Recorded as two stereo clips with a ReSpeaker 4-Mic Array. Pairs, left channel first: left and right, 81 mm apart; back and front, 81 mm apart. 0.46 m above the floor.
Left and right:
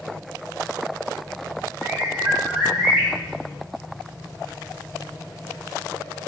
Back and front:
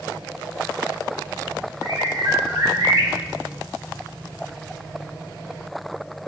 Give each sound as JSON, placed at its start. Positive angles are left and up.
{"t": 1.8, "sound": "a bird", "azimuth_deg": -5, "distance_m": 1.1}